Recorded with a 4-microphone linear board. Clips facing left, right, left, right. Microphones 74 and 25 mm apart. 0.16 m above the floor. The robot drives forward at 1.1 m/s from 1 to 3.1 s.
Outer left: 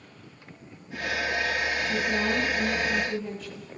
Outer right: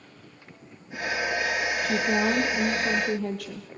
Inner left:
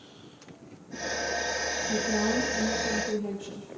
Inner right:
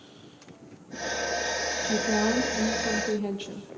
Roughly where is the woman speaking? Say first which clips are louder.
Outer right 5 dB, inner right 3 dB; right.